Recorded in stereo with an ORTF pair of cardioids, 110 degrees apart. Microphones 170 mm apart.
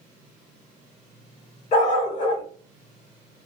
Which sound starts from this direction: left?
A dog barking, at 1.7 s.